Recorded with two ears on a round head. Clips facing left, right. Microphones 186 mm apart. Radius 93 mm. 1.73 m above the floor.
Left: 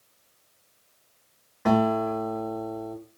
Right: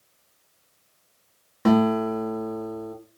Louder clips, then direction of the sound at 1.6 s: Right 3 dB; 50° right (ahead or behind).